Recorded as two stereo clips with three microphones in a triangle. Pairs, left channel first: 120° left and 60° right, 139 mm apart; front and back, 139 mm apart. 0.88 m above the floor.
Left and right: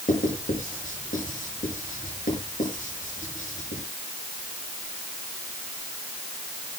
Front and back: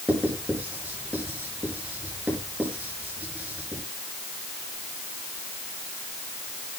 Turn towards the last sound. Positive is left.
turn(degrees=100)